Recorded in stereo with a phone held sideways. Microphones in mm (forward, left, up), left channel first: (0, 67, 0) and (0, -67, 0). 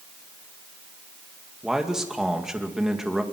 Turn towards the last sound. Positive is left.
turn(degrees=-5)  # may be behind; listen again after turning